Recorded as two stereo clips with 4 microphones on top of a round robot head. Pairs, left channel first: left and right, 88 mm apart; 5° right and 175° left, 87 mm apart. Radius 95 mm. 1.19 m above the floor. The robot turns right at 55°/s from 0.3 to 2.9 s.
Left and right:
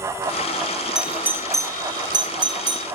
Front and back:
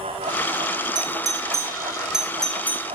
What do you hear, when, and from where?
0.9 s a doorbell: 170° right, 1.1 m; by 2.9 s 65° right, 1.1 m